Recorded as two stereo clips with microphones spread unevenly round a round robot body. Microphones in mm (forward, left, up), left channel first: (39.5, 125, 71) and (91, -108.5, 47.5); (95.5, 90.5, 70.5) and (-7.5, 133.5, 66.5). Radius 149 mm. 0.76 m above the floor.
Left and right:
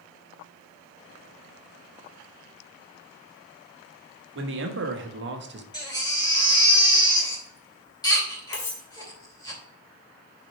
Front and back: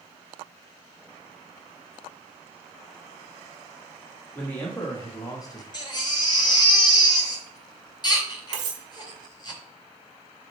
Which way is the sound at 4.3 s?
100° right.